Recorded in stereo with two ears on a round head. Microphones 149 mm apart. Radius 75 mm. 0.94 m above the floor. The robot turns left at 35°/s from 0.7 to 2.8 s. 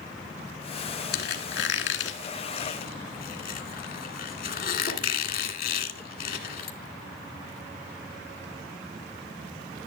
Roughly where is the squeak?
Left.